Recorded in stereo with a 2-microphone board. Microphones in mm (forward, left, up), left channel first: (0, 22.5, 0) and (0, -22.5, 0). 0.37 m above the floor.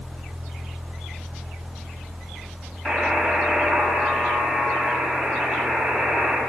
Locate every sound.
2.9 s a buzzer: centre (ahead or behind), 2.5 m